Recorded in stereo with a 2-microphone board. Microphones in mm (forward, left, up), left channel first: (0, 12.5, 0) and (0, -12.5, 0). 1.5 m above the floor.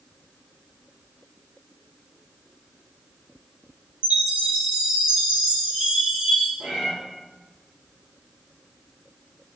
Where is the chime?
40° right (ahead or behind), 1.7 m.